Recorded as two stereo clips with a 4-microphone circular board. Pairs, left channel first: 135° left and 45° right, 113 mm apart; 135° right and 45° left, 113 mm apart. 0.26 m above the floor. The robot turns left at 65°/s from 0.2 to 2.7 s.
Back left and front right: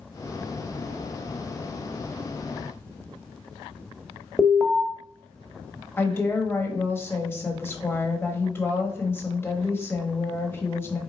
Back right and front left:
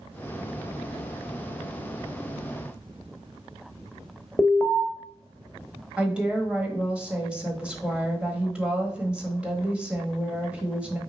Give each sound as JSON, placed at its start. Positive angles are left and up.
{"t": 4.4, "sound": "an alarm", "azimuth_deg": -145, "distance_m": 0.7}
{"t": 6.0, "sound": "a woman speaking", "azimuth_deg": 110, "distance_m": 1.1}